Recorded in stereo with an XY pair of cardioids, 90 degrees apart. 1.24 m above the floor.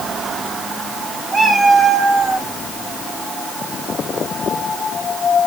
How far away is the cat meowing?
About 4.5 m.